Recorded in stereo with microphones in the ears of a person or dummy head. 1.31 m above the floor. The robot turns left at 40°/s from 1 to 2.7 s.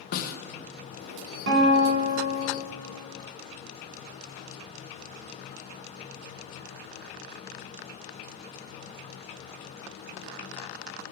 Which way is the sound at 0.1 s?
55° left (ahead or behind).